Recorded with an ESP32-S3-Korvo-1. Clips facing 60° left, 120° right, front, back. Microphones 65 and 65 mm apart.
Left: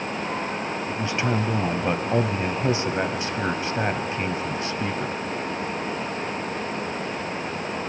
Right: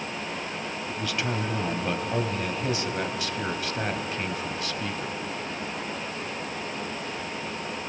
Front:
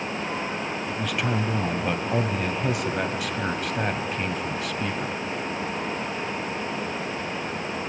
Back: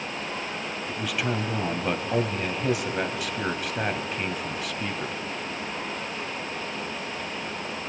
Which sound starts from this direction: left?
A man speaking, at 0.9 s.